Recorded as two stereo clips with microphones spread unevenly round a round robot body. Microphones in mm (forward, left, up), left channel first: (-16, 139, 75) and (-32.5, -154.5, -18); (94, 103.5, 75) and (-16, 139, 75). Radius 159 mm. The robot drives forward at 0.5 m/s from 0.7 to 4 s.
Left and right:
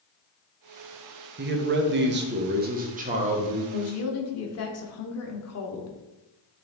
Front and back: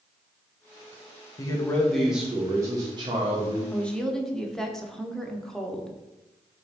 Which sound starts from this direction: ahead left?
A woman speaking, at 3.7 s.